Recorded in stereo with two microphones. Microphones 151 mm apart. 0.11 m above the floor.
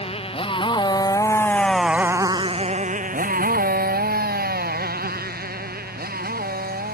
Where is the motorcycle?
40° left (ahead or behind); by 7.0 s 80° right.